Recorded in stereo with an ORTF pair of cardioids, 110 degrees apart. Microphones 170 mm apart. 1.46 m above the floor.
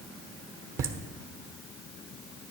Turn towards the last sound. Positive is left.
turn(degrees=-60)